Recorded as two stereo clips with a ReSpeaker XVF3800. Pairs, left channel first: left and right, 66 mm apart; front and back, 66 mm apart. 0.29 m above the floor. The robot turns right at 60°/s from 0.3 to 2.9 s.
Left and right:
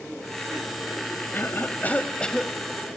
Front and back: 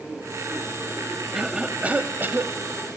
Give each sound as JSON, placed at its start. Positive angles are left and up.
{"t": 1.3, "sound": "a cough", "azimuth_deg": 100, "distance_m": 1.1}